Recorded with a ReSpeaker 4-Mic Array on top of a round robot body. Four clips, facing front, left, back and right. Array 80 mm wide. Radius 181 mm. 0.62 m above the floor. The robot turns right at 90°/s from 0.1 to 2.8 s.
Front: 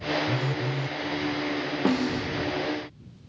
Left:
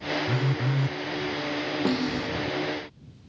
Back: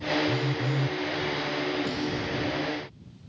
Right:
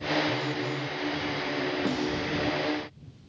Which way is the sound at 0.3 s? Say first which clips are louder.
Left 2 dB, back 1 dB; 60° left.